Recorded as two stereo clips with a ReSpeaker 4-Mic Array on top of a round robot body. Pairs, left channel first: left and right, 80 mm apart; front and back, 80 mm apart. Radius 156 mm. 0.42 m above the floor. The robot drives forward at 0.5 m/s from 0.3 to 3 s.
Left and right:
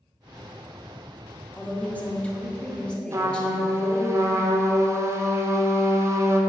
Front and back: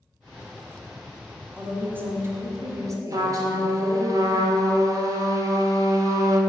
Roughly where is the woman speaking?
Behind left.